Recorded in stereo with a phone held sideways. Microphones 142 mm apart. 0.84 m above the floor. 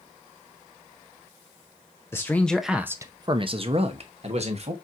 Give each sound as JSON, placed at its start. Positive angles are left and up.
{"t": 2.1, "sound": "a man speaking", "side_deg": 15, "distance_m": 0.7}